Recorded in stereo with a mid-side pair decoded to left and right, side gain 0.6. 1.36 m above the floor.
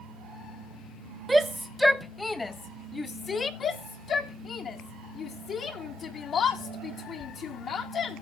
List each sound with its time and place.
1.3 s a shout: 10° right, 0.8 m; by 3.5 s 30° left, 1.6 m
3.6 s a shout: 45° left, 1.6 m